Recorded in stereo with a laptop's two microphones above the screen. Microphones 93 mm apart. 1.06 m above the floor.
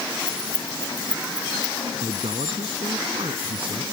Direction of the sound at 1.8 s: 70° right (ahead or behind).